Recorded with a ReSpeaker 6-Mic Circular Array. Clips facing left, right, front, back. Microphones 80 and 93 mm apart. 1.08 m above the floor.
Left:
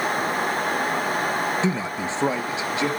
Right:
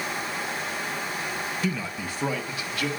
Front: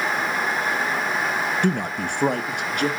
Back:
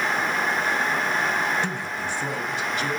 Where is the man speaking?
25° left, 0.8 m.